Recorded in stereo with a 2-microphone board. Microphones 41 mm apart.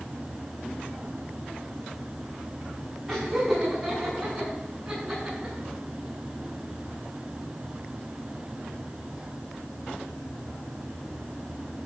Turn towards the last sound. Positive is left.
turn(degrees=-20)  # may be behind; listen again after turning